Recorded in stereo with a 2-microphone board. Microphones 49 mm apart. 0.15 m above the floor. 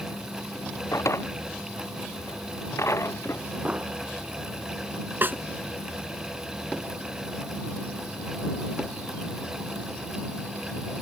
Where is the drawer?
75° left (ahead or behind).